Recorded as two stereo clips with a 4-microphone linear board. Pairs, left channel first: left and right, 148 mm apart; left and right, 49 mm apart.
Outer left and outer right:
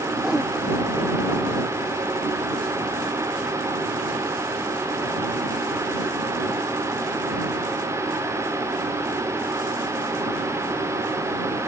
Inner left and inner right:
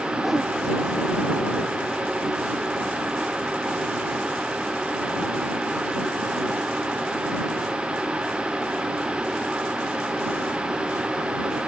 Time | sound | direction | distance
0.2 | a whoosh | 5° right (ahead or behind) | ?